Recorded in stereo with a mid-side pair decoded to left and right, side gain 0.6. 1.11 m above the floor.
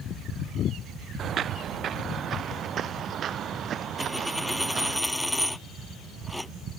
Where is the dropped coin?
10° left.